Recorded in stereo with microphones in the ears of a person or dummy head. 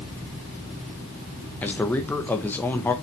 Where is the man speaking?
5° left (ahead or behind), 1.2 m.